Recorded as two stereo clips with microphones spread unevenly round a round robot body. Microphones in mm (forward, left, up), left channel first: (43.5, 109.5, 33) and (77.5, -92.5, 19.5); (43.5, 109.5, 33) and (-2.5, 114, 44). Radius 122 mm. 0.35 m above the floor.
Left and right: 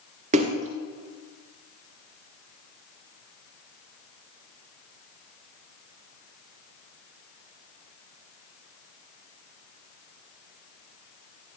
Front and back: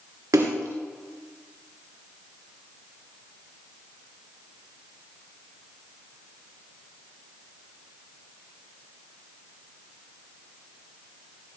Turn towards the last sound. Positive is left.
turn(degrees=-145)